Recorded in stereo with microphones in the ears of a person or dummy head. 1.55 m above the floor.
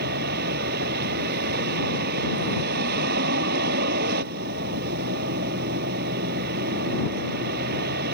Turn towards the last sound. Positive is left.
turn(degrees=-45)  # may be behind; listen again after turning